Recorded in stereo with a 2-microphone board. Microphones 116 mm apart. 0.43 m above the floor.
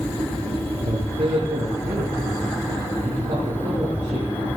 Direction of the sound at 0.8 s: 75° right (ahead or behind).